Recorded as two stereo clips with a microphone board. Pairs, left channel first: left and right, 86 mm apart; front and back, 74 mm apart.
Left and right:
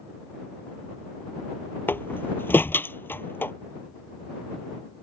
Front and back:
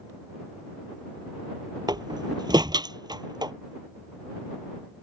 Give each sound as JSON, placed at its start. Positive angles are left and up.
{"t": 1.9, "sound": "a door slam", "azimuth_deg": 155}